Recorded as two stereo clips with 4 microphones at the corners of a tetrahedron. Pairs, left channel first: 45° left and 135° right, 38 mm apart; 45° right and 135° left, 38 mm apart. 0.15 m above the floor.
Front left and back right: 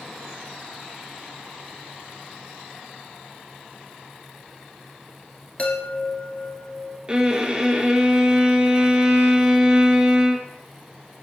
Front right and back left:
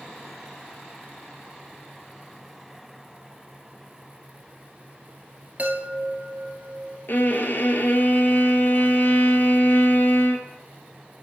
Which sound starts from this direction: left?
A chime, at 5.6 s.